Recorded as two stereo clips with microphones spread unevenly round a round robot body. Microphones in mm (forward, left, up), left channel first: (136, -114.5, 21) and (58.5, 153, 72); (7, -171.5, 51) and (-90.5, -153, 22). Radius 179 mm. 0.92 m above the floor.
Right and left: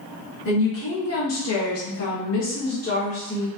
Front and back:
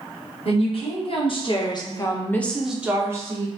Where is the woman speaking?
40° right, 1.4 m; by 3.5 s 145° right, 0.9 m.